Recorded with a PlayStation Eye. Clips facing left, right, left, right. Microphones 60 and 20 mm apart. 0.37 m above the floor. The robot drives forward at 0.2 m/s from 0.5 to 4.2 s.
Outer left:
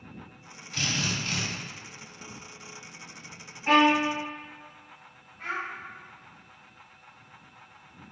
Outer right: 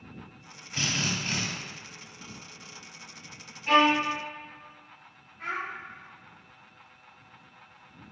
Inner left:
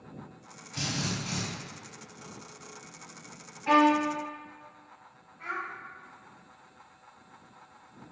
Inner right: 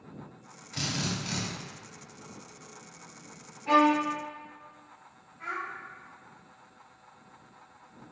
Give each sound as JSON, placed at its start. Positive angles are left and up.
{"t": 0.7, "sound": "a drill", "side_deg": -20, "distance_m": 1.1}
{"t": 3.7, "sound": "a violin", "side_deg": 40, "distance_m": 0.9}
{"t": 5.4, "sound": "a child speaking", "side_deg": 10, "distance_m": 1.3}